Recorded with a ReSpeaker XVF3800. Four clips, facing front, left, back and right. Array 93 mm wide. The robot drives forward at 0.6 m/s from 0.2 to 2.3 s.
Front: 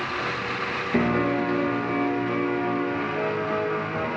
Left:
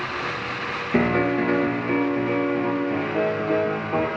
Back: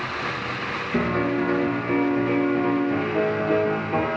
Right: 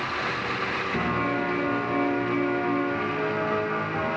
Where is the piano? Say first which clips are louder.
Left 8 dB, even; 65° left, 0.6 m; by 4.1 s 135° left, 0.8 m.